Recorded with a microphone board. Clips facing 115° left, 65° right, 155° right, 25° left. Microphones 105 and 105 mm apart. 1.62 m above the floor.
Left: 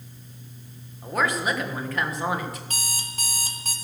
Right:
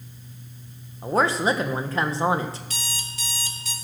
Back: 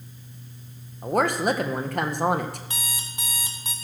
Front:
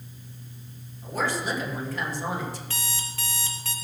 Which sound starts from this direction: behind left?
An alarm clock, at 2.7 s.